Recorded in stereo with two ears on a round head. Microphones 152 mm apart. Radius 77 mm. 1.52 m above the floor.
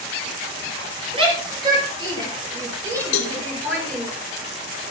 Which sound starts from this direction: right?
A shout, at 1.1 s.